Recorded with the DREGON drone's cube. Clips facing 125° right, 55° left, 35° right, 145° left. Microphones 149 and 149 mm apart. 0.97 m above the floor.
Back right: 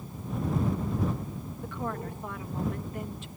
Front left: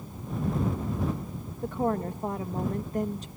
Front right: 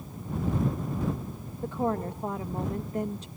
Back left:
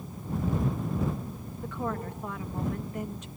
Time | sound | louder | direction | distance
1.6 | a woman speaking | front left 8 dB, front right 5 dB | 15° left | ?